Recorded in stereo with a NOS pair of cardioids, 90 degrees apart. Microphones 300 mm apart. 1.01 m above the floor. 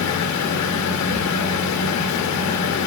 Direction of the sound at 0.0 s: 65° left.